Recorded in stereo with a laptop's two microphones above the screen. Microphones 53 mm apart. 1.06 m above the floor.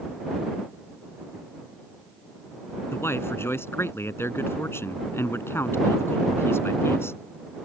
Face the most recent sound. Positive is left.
turn(degrees=45)  # may be behind; listen again after turning